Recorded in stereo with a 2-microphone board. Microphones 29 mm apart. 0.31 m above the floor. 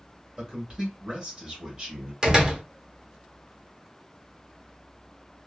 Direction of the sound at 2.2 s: 25° right (ahead or behind).